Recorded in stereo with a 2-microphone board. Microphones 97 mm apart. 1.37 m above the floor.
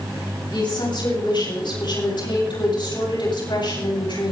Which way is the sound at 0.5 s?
60° left (ahead or behind).